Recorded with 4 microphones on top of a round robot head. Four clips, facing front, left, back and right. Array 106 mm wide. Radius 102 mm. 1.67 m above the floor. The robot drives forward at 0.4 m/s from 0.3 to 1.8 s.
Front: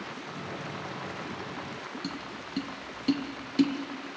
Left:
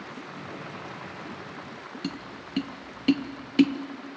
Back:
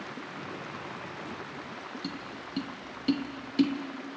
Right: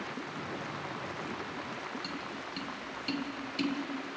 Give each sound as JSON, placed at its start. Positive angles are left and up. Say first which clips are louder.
{"t": 2.0, "sound": "tapping", "louder": "left 3 dB, front 1 dB", "azimuth_deg": 90, "distance_m": 1.0}